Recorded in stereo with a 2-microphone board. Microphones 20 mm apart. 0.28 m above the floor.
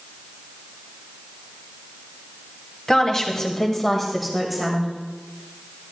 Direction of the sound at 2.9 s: 30° left (ahead or behind).